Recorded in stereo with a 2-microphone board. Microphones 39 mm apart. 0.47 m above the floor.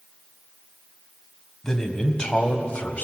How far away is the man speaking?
About 3 m.